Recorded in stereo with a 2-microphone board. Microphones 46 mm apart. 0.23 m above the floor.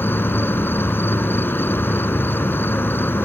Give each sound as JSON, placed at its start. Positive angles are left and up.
{"t": 0.0, "sound": "an insect", "side_deg": 60}